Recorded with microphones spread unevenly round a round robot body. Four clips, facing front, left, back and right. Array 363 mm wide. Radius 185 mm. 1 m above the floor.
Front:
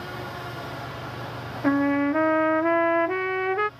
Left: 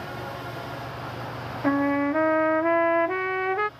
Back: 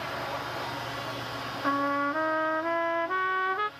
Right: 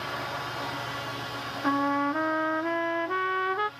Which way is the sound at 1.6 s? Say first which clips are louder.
Left 3 dB, front 6 dB; 15° left.